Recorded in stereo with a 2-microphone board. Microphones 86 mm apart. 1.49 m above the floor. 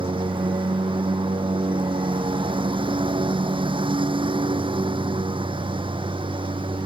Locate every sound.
0.0 s a lawn mower: 75° right (ahead or behind)